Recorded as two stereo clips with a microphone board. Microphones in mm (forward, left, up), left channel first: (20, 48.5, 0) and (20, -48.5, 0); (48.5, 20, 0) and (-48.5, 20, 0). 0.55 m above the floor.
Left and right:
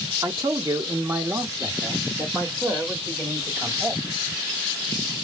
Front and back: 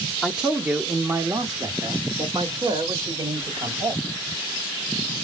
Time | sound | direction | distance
0.2 | a man speaking | 95° right | 1.1 m